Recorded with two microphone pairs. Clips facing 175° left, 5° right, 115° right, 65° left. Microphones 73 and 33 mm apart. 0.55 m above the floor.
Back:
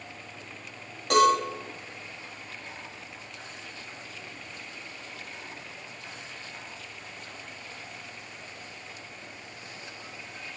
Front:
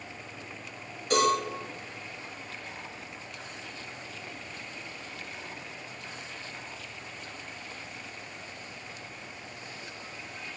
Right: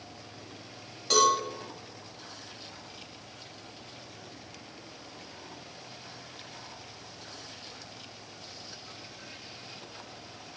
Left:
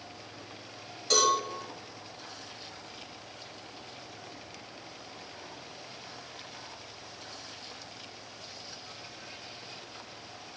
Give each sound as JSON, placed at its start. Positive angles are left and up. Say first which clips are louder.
{"t": 1.1, "sound": "a cowbell", "louder": "back 4 dB, right 2 dB", "azimuth_deg": 170, "distance_m": 3.0}